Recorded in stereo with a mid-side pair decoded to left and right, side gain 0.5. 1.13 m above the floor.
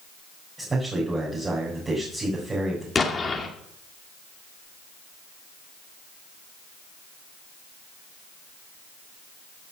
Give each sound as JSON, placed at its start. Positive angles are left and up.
{"t": 0.6, "sound": "a man speaking", "azimuth_deg": -20, "distance_m": 4.5}
{"t": 3.0, "sound": "an explosion", "azimuth_deg": 30, "distance_m": 2.0}